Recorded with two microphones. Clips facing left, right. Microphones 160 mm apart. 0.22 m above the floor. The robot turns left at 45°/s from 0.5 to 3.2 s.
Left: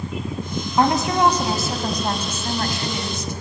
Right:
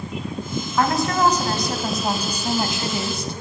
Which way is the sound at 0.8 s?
45° left.